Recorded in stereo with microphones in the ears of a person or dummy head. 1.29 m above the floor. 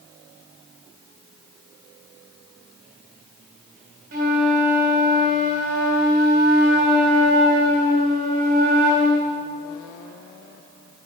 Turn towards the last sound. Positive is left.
turn(degrees=-45)  # may be behind; listen again after turning